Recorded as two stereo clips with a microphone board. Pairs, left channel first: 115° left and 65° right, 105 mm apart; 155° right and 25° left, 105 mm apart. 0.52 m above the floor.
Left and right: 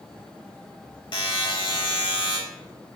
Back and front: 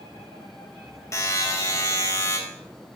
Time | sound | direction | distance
1.1 | a buzzer | 145° left | 2.5 m